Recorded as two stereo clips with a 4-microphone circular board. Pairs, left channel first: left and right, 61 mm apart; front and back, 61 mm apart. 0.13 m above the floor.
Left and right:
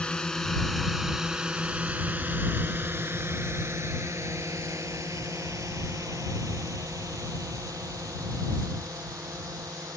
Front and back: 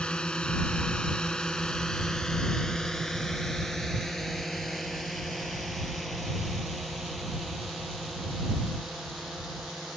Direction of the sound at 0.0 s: 45° left.